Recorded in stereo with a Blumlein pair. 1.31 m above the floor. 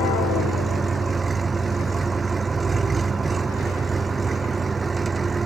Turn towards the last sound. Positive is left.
turn(degrees=-15)